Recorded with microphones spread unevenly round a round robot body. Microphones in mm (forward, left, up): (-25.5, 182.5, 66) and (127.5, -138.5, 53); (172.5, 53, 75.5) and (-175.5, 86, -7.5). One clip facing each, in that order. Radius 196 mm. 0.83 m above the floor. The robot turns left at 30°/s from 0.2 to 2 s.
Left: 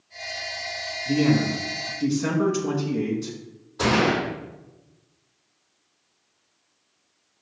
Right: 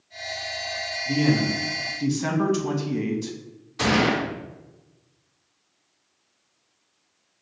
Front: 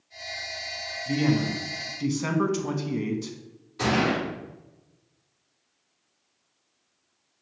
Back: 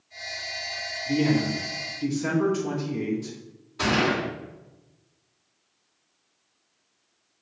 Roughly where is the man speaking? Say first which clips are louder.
Left 2 dB, back 1 dB; ahead left.